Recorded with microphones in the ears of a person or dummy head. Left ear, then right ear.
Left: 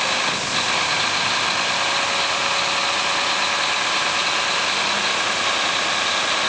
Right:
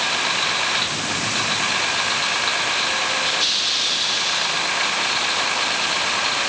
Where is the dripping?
I don't hear dripping.